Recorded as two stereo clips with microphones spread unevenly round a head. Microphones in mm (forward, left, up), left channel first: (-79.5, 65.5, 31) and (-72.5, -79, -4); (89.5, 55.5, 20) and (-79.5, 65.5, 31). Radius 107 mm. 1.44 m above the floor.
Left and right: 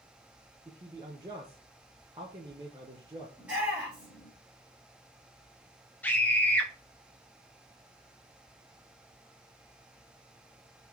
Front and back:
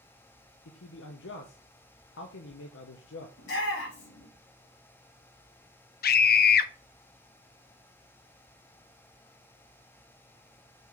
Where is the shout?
5° right, 3.5 m.